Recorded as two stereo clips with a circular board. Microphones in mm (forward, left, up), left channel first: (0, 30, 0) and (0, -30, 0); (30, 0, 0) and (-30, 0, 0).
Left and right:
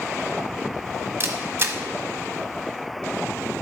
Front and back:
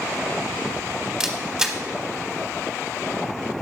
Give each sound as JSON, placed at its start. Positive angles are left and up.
{"t": 1.2, "sound": "a camera shutter", "azimuth_deg": -110, "distance_m": 0.9}